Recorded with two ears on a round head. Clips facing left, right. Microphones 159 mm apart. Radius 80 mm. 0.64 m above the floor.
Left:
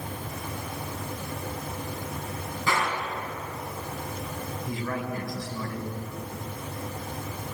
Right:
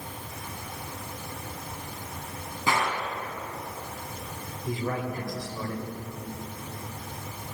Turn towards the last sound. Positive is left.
turn(degrees=-25)  # may be behind; listen again after turning